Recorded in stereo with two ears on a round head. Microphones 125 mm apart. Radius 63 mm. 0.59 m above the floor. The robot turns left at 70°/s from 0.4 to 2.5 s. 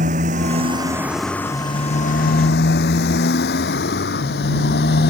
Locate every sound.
0.0 s a motorcycle: 60° right (ahead or behind); by 5.1 s 80° left